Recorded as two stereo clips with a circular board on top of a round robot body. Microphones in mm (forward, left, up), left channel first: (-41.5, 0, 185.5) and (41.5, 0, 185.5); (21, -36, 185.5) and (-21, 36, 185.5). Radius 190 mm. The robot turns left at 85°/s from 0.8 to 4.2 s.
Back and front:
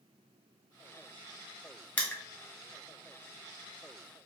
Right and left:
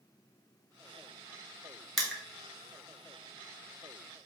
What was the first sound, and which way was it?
Crushing, 135° right.